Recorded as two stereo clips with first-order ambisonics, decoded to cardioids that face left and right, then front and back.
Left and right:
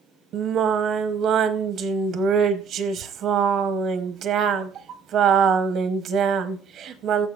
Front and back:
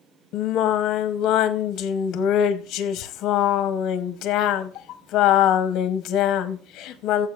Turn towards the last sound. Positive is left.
turn(degrees=-40)